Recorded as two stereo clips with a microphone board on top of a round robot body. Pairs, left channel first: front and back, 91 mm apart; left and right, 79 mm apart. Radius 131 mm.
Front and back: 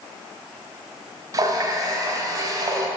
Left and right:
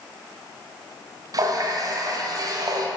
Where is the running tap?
130° right, 1.2 m.